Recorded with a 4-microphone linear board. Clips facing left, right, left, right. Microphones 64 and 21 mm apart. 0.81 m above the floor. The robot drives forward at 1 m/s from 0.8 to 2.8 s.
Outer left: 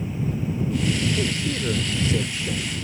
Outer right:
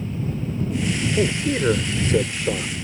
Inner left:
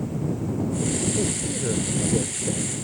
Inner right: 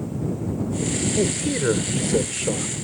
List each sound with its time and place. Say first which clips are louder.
1.2 s a man speaking: outer right 5 dB, inner right 4 dB; 45° right (ahead or behind); by 2.7 s 70° right (ahead or behind)